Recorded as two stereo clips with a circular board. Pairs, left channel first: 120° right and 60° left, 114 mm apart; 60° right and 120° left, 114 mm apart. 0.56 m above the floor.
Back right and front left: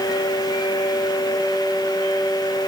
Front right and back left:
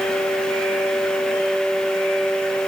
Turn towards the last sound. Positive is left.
No sound to turn to.